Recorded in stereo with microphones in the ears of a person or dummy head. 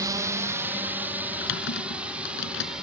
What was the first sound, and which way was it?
A drone, 20° right (ahead or behind).